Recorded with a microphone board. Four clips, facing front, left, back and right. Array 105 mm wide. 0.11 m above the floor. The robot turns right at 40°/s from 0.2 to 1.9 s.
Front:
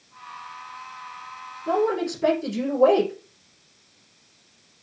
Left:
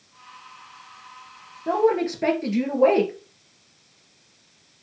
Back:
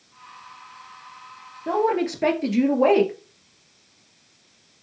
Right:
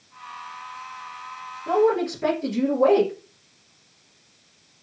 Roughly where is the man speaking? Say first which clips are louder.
Even, back 1 dB; behind left.